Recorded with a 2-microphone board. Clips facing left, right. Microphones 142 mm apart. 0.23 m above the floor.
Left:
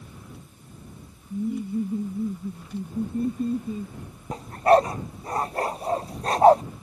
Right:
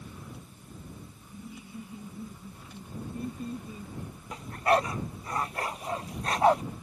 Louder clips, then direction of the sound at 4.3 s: Left 8 dB; 35° left (ahead or behind).